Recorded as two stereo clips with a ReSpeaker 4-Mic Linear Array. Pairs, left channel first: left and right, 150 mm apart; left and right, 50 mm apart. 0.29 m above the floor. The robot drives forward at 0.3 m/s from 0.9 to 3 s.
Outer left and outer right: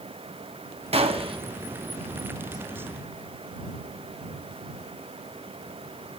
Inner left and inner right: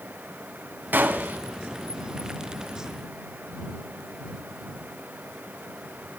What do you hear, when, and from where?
0.9 s a gunshot: 40° right (ahead or behind), 0.9 m; by 1.4 s 35° right (ahead or behind), 1.0 m